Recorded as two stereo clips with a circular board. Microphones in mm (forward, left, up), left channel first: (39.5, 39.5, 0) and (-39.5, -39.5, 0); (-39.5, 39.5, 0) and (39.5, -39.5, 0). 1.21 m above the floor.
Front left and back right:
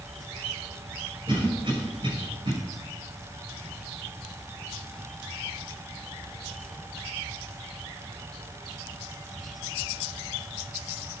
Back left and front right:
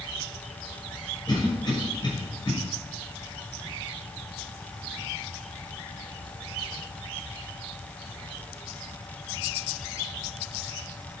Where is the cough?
Straight behind, 6 m.